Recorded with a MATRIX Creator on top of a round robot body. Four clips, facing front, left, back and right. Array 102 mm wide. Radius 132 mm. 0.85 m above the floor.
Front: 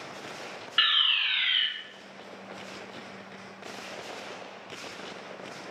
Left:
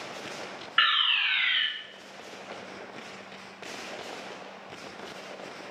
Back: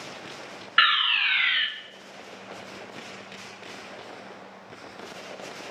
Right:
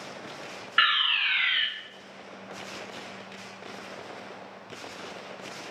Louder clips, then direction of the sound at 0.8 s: Right 1 dB, back 8 dB; 170° right.